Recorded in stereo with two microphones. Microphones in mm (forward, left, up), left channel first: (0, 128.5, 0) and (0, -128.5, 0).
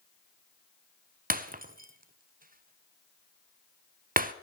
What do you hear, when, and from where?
1.3 s breaking glass: 35° right (ahead or behind), 0.7 m